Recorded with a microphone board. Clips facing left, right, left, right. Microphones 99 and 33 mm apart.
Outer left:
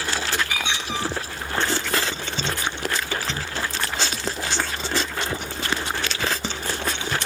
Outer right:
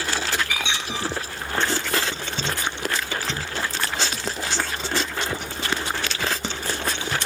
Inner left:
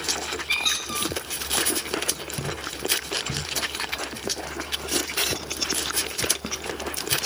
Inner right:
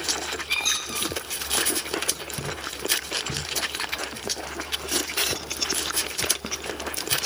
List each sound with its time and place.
0.5 s a squeak: 45° left (ahead or behind), 1.0 m